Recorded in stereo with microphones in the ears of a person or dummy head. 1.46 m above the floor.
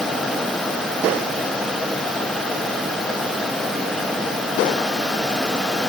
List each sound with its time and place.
Only background noise.